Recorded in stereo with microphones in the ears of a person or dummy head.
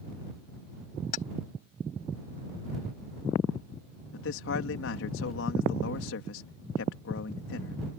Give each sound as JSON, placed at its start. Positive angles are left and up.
{"t": 1.1, "sound": "keys jangling", "side_deg": 45}
{"t": 4.1, "sound": "a man speaking", "side_deg": 80}